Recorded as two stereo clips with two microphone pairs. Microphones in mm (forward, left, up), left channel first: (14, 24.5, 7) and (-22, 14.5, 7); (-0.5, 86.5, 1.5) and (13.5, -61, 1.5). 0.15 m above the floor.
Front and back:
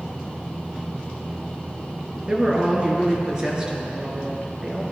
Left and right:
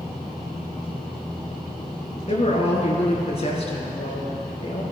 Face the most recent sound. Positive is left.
turn(degrees=130)